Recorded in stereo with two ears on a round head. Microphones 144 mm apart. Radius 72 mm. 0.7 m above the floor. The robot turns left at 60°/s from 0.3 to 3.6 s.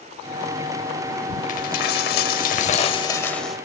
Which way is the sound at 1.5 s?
120° left.